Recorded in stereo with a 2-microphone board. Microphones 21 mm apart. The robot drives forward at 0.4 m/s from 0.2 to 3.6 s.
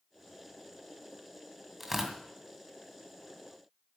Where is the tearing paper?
5° right (ahead or behind), 2 m.